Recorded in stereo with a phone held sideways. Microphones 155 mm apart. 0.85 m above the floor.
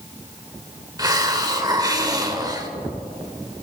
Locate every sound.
1.0 s a hiss: 25° right (ahead or behind), 1.2 m